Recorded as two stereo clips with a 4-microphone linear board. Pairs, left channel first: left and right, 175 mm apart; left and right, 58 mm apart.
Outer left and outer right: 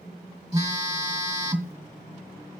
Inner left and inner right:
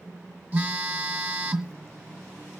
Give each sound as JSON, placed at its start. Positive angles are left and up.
{"t": 0.5, "sound": "a phone buzzing", "side_deg": -20, "distance_m": 1.5}